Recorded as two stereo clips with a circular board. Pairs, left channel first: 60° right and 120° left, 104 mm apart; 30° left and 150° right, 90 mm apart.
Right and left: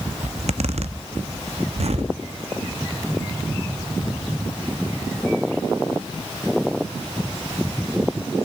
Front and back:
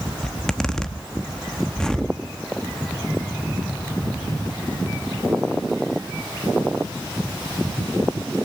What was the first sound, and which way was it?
A zipper, 110° left.